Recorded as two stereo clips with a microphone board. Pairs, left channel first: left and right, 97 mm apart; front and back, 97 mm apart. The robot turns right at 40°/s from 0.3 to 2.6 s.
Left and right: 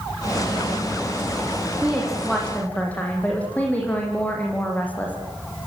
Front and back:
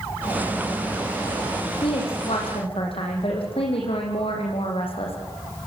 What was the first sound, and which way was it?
A woman speaking, 15° right.